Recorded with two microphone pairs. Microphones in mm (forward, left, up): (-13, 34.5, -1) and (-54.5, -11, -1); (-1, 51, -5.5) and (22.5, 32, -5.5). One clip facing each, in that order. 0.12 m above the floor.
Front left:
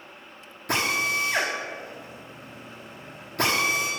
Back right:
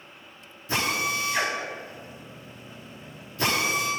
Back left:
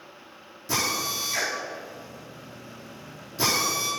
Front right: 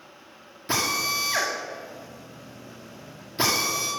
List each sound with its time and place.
0.7 s a drill: 20° left, 7 m